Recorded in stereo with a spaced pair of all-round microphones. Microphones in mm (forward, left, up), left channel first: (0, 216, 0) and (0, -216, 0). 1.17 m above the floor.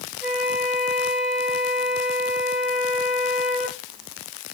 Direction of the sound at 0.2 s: Centre (ahead or behind).